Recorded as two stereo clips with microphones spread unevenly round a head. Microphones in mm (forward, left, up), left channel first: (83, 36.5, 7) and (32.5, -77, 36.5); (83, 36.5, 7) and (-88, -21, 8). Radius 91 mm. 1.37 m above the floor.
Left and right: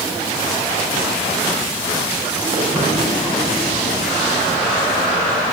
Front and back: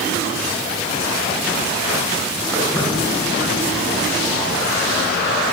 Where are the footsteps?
65° right, 8 m; by 5.3 s 75° right, 9.5 m.